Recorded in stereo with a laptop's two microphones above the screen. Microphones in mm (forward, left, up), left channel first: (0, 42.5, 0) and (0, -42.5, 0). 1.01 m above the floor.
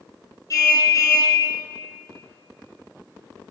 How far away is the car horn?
About 6.5 m.